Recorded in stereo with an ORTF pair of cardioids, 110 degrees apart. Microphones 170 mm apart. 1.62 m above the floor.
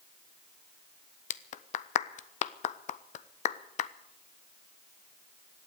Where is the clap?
50° left, 0.7 m.